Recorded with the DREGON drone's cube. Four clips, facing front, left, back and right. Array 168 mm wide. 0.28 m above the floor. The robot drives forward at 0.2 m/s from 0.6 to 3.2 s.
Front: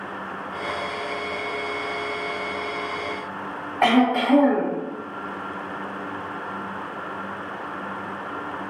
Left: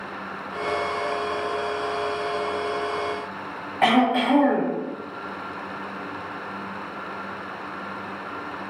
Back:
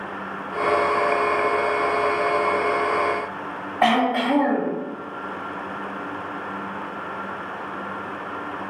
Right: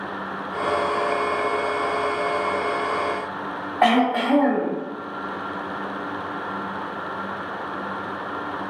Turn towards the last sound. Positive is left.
turn(degrees=-120)